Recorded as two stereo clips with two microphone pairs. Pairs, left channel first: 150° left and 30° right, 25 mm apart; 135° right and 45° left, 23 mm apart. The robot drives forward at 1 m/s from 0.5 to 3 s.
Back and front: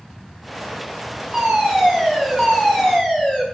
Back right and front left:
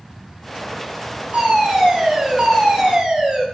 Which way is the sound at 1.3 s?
55° left.